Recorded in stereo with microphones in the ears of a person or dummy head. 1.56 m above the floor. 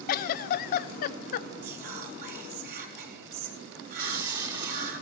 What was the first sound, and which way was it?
A giggle, 55° left (ahead or behind).